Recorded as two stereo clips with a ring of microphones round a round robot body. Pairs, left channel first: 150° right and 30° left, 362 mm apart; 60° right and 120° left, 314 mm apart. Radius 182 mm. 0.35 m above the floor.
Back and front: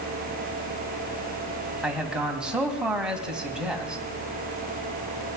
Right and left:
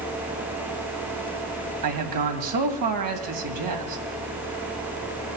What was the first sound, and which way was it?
A man speaking, 120° left.